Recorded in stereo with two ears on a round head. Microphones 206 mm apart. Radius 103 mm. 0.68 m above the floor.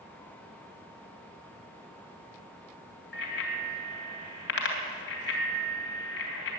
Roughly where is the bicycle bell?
Left.